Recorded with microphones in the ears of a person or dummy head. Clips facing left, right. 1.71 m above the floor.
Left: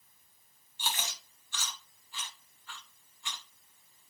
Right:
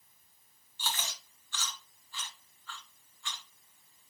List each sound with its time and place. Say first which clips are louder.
0.8 s chewing: left 1 dB; 15° left (ahead or behind), 0.6 m